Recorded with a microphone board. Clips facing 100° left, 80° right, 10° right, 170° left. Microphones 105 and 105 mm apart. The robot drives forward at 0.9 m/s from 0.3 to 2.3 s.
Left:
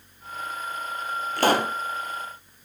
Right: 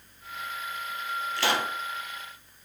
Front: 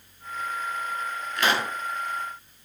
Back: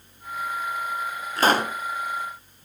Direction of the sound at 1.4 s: 125° left.